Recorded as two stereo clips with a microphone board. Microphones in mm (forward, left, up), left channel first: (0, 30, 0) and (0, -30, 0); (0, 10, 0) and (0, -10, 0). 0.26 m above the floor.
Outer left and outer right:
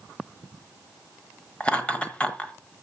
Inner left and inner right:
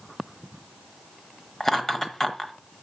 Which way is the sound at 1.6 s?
20° left (ahead or behind).